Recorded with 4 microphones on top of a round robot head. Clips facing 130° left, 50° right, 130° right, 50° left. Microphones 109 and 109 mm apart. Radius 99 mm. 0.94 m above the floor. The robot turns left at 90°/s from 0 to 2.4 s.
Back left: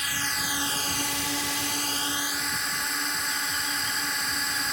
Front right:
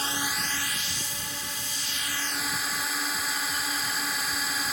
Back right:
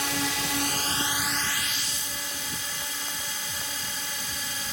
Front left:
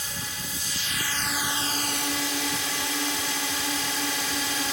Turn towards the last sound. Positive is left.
turn(degrees=40)